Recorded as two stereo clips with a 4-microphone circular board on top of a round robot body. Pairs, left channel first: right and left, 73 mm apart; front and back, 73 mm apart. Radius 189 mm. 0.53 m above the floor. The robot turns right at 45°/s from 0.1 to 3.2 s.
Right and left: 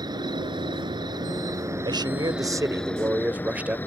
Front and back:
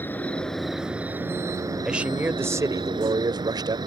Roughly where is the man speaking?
Left.